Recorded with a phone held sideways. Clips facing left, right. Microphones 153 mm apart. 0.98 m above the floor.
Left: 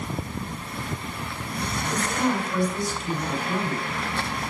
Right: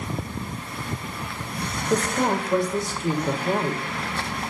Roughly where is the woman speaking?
Right.